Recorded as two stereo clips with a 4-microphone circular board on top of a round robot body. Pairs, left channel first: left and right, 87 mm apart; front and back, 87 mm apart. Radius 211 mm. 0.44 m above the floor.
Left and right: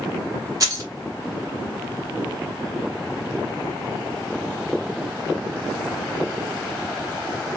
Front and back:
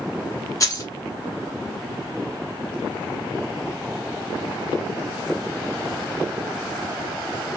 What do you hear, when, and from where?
0.6 s keys jangling: 45° right, 1.2 m